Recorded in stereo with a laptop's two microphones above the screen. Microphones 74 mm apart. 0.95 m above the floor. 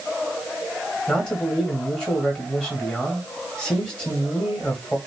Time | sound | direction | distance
1.1 | a man speaking | 10° left (ahead or behind) | 2 m